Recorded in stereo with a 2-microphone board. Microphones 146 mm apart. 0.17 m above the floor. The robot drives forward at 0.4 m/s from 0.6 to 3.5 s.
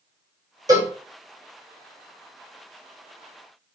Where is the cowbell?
25° right (ahead or behind), 1.5 m; by 0.9 s 30° right (ahead or behind), 1.4 m.